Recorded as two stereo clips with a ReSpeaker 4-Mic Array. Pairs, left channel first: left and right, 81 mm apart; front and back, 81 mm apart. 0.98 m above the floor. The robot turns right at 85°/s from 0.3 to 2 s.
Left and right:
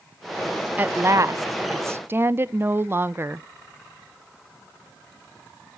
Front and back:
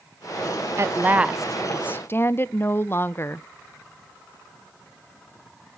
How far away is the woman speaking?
About 0.5 m.